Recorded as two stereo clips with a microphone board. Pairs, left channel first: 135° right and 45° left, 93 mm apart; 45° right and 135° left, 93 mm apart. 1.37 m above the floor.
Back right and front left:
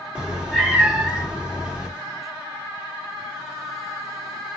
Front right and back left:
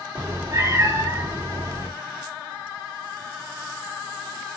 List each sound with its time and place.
0.1 s a cat meowing: 115° left, 1.0 m